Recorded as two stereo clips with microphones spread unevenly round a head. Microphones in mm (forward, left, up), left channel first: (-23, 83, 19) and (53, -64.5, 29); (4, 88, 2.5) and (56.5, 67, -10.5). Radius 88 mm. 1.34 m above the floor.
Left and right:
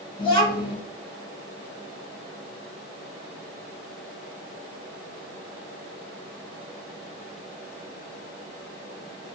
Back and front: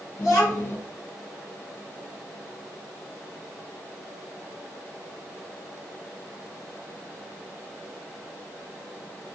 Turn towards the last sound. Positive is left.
turn(degrees=180)